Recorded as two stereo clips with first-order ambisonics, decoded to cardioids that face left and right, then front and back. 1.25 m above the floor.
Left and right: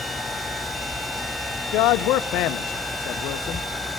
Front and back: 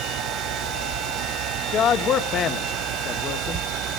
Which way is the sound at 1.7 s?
55° left.